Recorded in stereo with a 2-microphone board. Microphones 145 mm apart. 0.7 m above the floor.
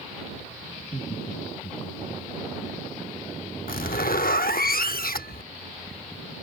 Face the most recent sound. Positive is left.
turn(degrees=90)